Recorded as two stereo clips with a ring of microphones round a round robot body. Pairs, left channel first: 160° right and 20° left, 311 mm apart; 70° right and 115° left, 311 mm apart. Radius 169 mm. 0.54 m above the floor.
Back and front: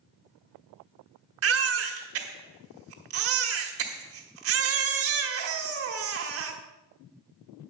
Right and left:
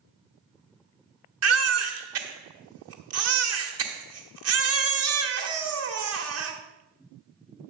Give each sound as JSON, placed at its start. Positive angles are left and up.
{"t": 1.4, "sound": "a baby crying", "azimuth_deg": 70, "distance_m": 1.3}